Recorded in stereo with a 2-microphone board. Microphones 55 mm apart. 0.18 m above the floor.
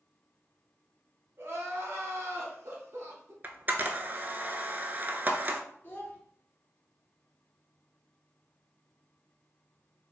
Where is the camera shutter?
35° right (ahead or behind), 0.5 m.